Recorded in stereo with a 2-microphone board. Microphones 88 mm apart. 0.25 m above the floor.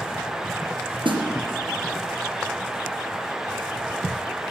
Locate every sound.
1.1 s a snare drum: 75° right (ahead or behind), 3 m